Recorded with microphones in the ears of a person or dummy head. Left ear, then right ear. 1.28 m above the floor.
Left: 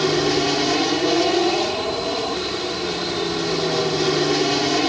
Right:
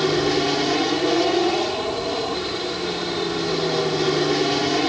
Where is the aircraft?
5° left (ahead or behind).